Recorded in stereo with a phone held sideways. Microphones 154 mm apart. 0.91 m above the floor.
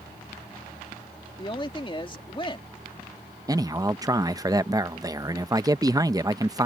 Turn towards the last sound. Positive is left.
turn(degrees=-20)  # may be behind; listen again after turning